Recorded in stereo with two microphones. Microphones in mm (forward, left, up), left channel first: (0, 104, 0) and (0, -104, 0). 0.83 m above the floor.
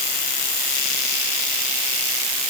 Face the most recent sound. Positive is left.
No sound to turn to.